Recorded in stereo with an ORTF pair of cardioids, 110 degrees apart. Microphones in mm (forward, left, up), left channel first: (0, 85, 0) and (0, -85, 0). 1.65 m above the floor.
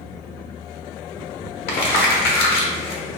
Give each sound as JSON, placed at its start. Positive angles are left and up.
{"t": 1.7, "sound": "crumpling", "azimuth_deg": 65, "distance_m": 1.1}